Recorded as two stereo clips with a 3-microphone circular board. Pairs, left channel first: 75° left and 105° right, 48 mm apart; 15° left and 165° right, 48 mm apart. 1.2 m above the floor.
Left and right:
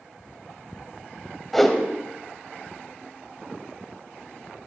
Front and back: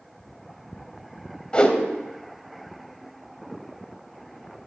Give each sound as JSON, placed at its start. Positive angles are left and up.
{"t": 1.5, "sound": "a whoosh", "azimuth_deg": -5, "distance_m": 1.0}